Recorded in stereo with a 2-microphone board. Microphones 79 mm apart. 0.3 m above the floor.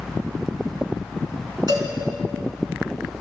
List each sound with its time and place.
1.7 s a cowbell: 65° right (ahead or behind), 2.5 m